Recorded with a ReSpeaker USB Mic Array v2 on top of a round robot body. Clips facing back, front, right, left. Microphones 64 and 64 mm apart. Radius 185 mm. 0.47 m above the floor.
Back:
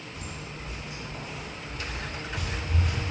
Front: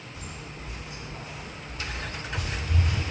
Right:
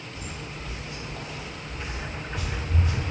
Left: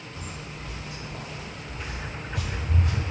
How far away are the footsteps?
About 1.6 m.